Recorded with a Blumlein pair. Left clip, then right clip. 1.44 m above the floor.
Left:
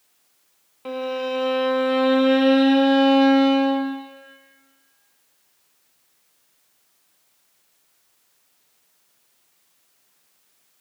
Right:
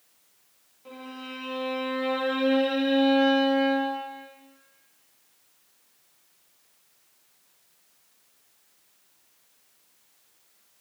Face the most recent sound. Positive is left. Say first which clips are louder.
# left 15 dB
turn(degrees=55)